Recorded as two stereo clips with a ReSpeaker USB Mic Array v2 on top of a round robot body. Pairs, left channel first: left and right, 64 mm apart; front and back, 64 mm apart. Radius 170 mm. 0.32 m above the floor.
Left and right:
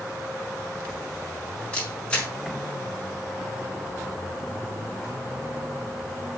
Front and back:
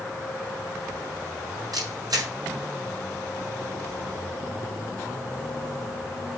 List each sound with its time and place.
1.7 s a camera shutter: 160° left, 5 m